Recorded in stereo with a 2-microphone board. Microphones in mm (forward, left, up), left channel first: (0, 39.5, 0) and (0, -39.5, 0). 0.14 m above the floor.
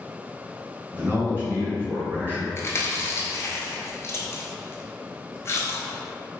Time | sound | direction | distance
0.9 | a man speaking | 20° right (ahead or behind) | 1.8 m
2.6 | chewing | 35° left (ahead or behind) | 0.5 m